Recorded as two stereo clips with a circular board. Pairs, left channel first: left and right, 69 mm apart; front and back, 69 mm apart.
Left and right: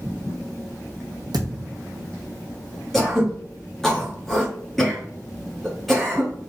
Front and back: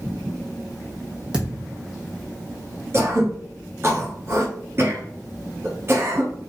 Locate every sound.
1.3 s a thud: 100° right, 1.3 m
2.9 s throat clearing: 175° left, 1.4 m